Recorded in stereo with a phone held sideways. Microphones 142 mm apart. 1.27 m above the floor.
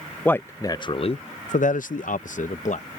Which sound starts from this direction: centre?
A man speaking, at 0.2 s.